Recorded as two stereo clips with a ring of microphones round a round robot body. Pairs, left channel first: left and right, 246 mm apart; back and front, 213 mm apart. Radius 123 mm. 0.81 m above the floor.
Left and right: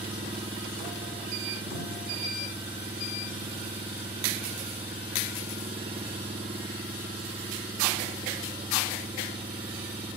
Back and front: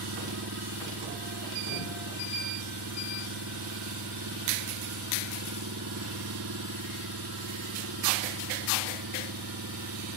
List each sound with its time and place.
0.0 s an engine running: 20° right